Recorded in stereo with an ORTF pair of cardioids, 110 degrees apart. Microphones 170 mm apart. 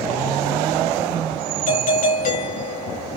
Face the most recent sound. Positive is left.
turn(degrees=50)